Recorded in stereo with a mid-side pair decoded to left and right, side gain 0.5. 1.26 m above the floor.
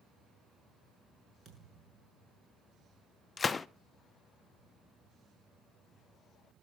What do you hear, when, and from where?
1.4 s a thud: 50° right, 7 m
3.4 s a gunshot: 30° left, 0.6 m